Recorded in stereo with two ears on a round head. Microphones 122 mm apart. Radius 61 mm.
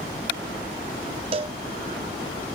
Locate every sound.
1.3 s a cowbell: 40° right (ahead or behind), 0.7 m